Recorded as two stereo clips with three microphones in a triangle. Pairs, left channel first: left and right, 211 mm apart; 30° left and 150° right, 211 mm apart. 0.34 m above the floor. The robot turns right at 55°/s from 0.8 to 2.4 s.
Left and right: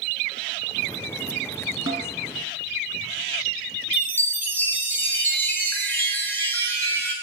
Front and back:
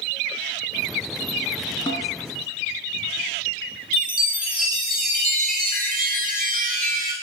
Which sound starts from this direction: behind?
A chime, at 3.9 s.